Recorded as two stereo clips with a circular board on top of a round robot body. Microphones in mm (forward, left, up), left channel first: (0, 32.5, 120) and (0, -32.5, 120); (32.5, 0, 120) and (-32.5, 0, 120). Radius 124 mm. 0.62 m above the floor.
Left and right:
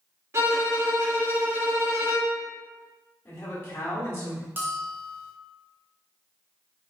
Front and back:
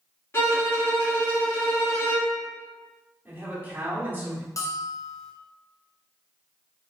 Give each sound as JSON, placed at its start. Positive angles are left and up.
{"t": 0.3, "sound": "a violin", "azimuth_deg": -45, "distance_m": 1.6}
{"t": 3.2, "sound": "a man speaking", "azimuth_deg": 130, "distance_m": 1.3}
{"t": 4.6, "sound": "a bell", "azimuth_deg": -30, "distance_m": 0.8}